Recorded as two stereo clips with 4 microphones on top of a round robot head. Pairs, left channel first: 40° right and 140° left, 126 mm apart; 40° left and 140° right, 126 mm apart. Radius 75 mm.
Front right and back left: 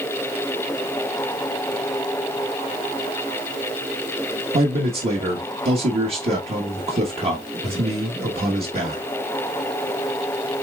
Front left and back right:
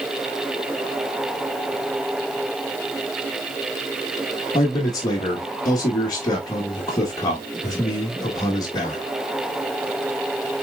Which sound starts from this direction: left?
A man speaking, at 4.5 s.